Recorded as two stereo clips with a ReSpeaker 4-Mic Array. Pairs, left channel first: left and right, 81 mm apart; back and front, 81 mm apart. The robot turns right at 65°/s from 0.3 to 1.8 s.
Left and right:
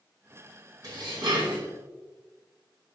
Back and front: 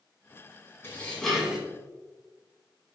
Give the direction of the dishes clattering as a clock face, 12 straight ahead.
4 o'clock.